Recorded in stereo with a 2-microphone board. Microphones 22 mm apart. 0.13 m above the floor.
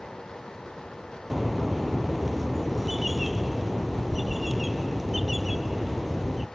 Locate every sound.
1.3 s a bird: centre (ahead or behind)